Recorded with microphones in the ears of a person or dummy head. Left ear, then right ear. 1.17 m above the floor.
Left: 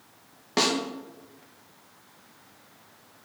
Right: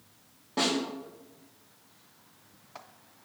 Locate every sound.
0.6 s a snare drum: 65° left (ahead or behind), 0.7 m